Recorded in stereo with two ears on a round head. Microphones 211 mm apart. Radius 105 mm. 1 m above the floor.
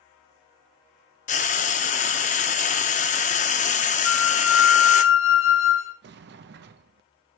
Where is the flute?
60° left (ahead or behind), 1.4 m.